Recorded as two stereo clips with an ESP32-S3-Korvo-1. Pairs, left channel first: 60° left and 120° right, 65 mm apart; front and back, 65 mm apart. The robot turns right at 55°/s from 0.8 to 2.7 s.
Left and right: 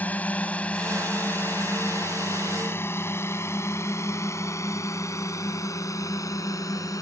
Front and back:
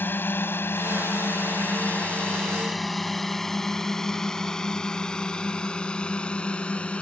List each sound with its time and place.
0.0 s a drone: 20° left; by 7.0 s 70° left